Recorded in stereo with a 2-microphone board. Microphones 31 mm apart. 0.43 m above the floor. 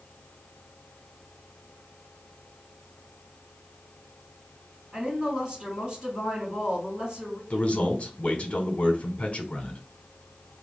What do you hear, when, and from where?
4.9 s a woman speaking: 25° right (ahead or behind), 2.5 m
7.5 s a man speaking: 40° left (ahead or behind), 0.9 m